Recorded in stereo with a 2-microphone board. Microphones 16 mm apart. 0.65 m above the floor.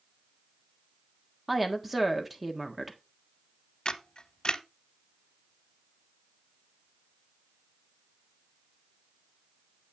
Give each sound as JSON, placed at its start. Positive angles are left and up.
{"t": 1.5, "sound": "a woman speaking", "side_deg": -5, "distance_m": 1.4}
{"t": 3.9, "sound": "a camera shutter", "side_deg": 45, "distance_m": 0.7}